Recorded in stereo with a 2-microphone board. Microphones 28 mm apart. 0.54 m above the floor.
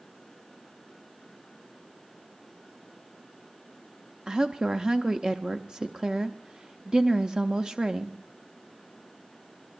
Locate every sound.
4.3 s a woman speaking: 25° right (ahead or behind), 0.7 m